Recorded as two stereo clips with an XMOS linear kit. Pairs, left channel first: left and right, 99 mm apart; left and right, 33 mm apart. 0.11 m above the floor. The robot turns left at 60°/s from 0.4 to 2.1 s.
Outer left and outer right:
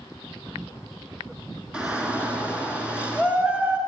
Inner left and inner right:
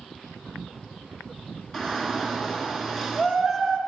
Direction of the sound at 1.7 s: 10° right (ahead or behind).